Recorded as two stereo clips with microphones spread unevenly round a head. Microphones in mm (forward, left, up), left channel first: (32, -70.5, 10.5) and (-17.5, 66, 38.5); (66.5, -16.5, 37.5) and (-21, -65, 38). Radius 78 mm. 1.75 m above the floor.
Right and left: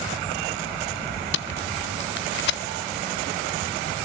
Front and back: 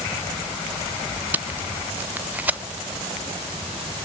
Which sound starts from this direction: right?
Tape being pulled, at 1.3 s.